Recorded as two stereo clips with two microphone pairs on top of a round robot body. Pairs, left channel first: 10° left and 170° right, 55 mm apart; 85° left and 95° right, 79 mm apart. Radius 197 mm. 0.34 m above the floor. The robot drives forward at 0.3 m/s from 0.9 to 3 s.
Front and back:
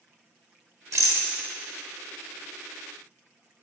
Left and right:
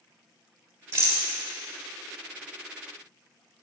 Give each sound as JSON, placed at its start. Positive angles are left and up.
{"t": 0.9, "sound": "a rattle", "azimuth_deg": -150, "distance_m": 2.5}